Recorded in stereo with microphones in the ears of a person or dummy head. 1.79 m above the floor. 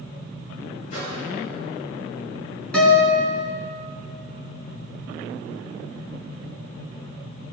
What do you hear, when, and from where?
0.9 s a microwave: 45° left (ahead or behind), 6.5 m
2.7 s a guitar: 5° left (ahead or behind), 5.5 m